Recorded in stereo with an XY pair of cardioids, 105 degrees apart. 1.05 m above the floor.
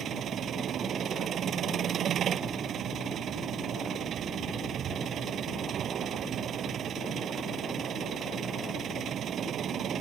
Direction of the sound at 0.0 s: 60° right.